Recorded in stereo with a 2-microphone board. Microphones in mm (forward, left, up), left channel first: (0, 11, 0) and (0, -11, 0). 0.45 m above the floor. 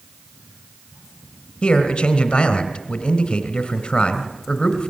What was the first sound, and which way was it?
A man speaking, 45° left (ahead or behind).